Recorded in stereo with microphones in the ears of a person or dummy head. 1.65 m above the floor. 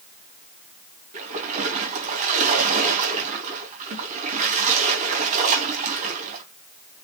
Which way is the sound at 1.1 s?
40° right (ahead or behind).